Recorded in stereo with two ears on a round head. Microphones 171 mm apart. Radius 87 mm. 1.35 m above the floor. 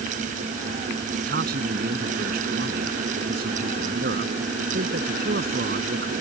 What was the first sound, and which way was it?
A man speaking, 50° right (ahead or behind).